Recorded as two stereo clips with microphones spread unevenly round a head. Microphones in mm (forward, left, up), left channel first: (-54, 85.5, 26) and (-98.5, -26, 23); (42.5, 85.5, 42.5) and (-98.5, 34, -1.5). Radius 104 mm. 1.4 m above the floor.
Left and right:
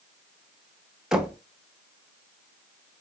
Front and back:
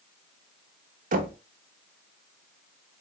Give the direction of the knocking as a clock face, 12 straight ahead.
7 o'clock.